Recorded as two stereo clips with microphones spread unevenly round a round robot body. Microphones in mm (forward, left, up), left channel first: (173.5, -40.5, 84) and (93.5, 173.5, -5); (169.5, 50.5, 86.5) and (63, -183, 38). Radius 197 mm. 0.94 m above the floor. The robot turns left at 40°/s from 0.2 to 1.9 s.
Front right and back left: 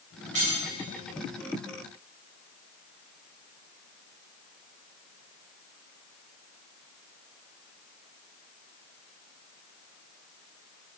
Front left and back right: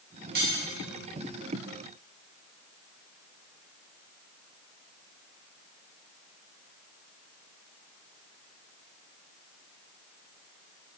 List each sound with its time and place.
0.3 s cutlery clinking: straight behind, 2 m; by 0.6 s 170° left, 2 m